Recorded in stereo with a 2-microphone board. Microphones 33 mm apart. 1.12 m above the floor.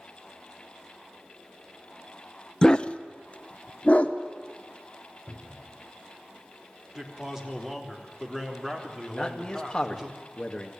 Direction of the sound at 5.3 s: 65° right (ahead or behind).